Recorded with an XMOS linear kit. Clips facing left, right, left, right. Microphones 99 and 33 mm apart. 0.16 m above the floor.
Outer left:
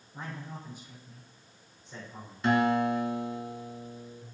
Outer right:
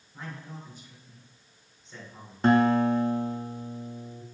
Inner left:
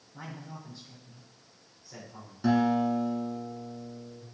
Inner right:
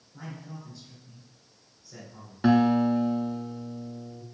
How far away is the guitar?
About 0.8 m.